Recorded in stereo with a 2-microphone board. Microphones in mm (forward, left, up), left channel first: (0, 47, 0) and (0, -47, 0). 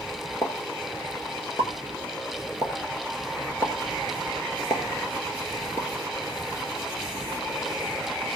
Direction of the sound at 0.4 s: 30° left (ahead or behind).